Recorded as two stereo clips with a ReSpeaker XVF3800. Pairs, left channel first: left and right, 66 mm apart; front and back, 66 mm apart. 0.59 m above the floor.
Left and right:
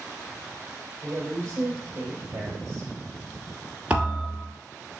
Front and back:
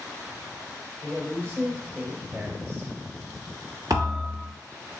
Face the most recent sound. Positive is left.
turn(degrees=-160)